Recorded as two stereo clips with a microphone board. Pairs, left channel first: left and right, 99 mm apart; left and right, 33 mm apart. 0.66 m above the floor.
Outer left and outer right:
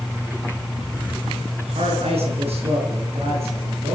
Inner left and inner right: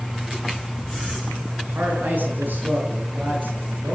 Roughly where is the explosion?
I don't hear an explosion.